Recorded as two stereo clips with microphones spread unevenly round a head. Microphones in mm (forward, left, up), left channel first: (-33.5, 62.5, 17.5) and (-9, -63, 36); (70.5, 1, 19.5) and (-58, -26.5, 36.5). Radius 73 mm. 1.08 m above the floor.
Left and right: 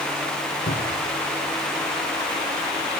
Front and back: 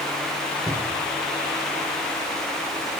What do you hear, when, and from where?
0.7 s a cupboard door: 115° left, 5.5 m